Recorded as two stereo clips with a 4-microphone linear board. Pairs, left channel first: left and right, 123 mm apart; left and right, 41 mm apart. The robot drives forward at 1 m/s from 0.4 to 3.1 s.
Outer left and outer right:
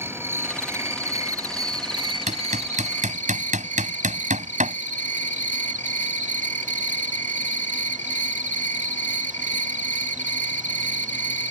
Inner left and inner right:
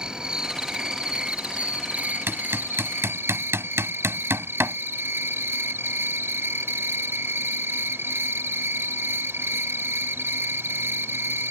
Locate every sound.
0.0 s an insect: 20° right (ahead or behind); by 11.5 s 75° right (ahead or behind)
2.3 s hammering: 70° right (ahead or behind); by 4.8 s 80° right